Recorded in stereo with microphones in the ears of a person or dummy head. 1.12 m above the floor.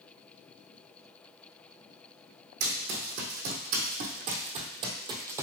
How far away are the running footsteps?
About 2.5 m.